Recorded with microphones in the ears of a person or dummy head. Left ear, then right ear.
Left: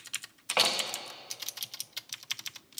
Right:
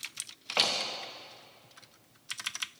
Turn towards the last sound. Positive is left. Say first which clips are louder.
# left 1 dB
turn(degrees=10)  # may be behind; listen again after turning